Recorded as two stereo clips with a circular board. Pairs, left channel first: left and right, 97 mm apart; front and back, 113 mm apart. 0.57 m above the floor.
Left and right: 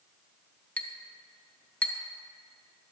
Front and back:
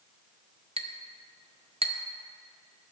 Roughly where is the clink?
Behind.